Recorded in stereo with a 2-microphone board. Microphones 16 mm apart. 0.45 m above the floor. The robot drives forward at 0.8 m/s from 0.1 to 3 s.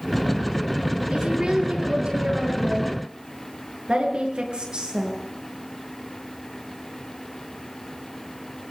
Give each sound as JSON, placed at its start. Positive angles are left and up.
{"t": 1.1, "sound": "a woman speaking", "side_deg": -80, "distance_m": 8.0}